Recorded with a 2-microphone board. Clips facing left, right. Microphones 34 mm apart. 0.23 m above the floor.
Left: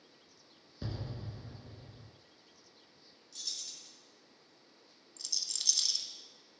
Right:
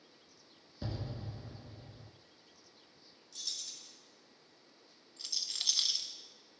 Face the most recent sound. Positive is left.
turn(degrees=-25)  # may be behind; listen again after turning